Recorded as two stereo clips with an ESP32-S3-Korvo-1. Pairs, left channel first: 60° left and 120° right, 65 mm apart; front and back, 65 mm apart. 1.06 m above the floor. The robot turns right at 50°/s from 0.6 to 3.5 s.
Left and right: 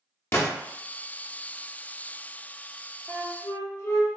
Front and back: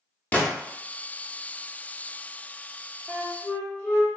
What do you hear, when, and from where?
0.3 s a gunshot: 50° left, 0.7 m
3.1 s a flute: 40° left, 0.8 m; by 4.1 s 60° left, 0.8 m